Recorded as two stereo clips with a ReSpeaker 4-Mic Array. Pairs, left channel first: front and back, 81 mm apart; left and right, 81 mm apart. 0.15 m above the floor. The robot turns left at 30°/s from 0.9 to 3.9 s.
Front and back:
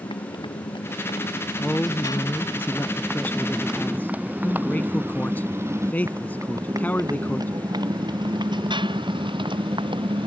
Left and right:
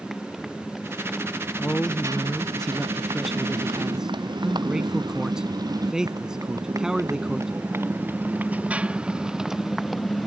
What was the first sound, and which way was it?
A motorcycle, straight ahead.